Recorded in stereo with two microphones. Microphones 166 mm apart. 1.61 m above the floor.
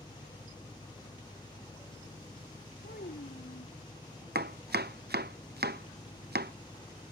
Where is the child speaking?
75° left (ahead or behind).